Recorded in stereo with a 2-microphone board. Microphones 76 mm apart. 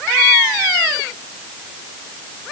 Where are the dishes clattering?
I don't hear dishes clattering.